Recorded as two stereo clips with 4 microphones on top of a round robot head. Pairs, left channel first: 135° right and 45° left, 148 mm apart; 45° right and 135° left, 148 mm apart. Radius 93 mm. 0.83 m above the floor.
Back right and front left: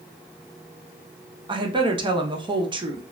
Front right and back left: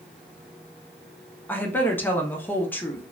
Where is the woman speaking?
25° left, 0.6 m.